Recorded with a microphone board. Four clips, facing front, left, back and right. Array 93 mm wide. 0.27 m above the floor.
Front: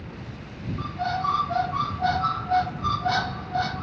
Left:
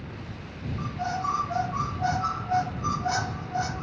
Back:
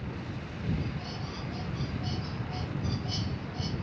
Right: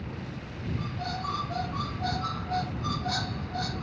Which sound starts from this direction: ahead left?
A squeak, at 0.8 s.